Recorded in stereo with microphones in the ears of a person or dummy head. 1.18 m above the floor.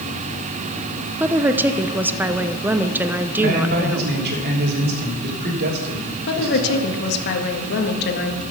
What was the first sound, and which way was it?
A woman speaking, 10° right (ahead or behind).